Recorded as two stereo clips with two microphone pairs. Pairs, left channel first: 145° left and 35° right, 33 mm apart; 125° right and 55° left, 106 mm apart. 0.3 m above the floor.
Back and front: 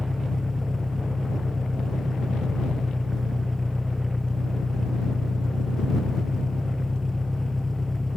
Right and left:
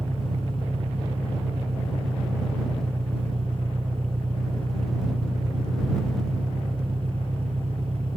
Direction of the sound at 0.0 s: 60° left.